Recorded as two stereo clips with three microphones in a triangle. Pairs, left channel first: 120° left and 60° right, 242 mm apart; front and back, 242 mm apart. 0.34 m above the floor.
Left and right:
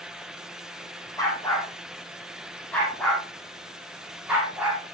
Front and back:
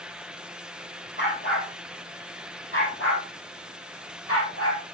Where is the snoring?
I don't hear snoring.